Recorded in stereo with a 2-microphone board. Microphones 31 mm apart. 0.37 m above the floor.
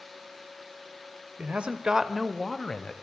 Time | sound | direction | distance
1.4 | a man speaking | 50° right (ahead or behind) | 1.3 m